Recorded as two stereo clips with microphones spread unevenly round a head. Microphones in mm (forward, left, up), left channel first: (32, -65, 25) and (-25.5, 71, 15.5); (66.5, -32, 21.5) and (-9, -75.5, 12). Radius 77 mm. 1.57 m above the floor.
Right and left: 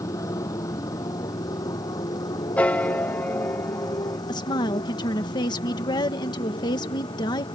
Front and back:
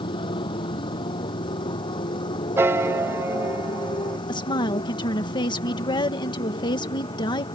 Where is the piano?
125° right.